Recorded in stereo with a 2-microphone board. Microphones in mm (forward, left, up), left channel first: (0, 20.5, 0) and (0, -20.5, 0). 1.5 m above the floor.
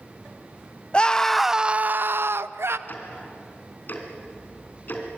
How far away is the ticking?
About 3.5 m.